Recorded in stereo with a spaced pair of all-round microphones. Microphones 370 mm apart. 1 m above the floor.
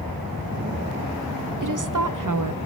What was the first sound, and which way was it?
A woman speaking, 55° right (ahead or behind).